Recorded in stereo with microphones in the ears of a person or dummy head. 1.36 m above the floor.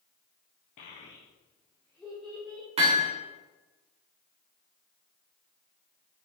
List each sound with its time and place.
0.8 s a child speaking: 45° left (ahead or behind), 0.7 m; by 2.7 s 10° right (ahead or behind), 1.2 m
2.8 s hammering: 40° right (ahead or behind), 1.6 m